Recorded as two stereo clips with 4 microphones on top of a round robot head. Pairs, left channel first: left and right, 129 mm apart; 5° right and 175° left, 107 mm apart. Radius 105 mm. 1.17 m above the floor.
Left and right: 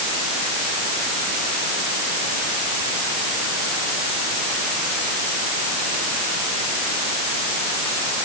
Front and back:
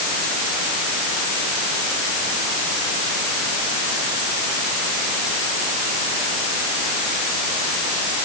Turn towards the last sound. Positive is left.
No sound to turn to.